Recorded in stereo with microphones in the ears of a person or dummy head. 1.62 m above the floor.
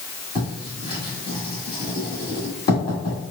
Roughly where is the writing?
Left.